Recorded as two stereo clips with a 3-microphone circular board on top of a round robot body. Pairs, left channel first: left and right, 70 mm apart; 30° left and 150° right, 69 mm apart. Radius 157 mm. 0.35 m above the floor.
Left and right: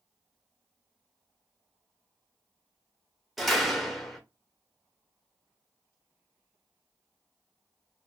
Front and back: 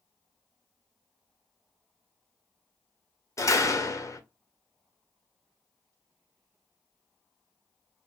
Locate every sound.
3.4 s a door slam: straight ahead, 1.0 m